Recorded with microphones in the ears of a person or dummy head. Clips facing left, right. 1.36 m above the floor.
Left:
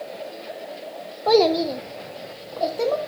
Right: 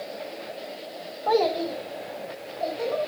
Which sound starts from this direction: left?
A child speaking, at 1.3 s.